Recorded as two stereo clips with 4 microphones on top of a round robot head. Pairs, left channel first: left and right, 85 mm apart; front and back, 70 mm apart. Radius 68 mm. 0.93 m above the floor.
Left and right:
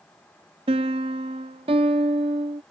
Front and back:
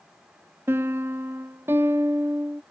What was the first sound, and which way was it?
A piano, 115° right.